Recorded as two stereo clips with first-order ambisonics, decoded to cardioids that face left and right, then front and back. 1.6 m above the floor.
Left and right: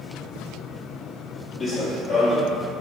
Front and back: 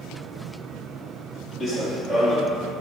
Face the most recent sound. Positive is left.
turn(degrees=40)